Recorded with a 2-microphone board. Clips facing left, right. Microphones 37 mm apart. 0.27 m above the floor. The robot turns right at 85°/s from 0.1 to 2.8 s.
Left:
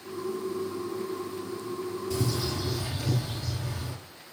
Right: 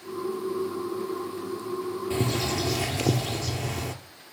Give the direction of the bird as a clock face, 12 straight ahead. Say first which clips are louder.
Right 4 dB; 5 o'clock.